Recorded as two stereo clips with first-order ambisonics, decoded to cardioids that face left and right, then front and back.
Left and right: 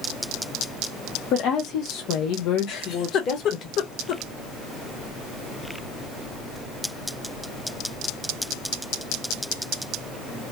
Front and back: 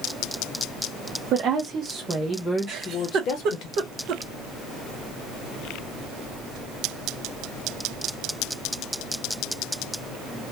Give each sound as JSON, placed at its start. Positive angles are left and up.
{"t": 1.3, "sound": "a woman speaking", "azimuth_deg": 130, "distance_m": 0.8}
{"t": 2.7, "sound": "a giggle", "azimuth_deg": 130, "distance_m": 0.7}